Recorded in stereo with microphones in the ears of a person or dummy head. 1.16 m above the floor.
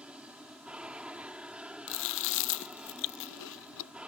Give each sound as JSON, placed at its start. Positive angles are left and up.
{"t": 0.0, "sound": "an aircraft", "side_deg": -5}
{"t": 1.9, "sound": "chewing", "side_deg": 65}